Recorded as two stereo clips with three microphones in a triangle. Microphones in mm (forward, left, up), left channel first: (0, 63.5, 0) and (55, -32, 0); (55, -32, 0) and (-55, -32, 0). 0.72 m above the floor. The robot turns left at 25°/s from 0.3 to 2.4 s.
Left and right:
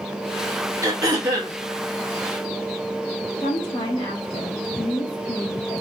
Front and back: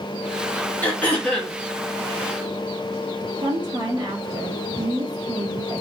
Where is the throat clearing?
55° right, 1.1 m; by 1.6 s 75° right, 1.1 m.